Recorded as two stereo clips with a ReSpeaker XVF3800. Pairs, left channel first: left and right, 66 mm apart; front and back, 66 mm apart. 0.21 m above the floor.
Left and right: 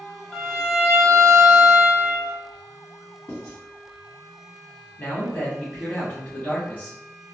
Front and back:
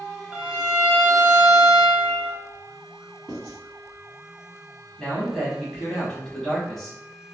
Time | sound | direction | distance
0.3 | a violin | 150° left | 1.0 m
3.3 | writing | 85° left | 1.7 m
5.0 | a man speaking | 80° left | 1.1 m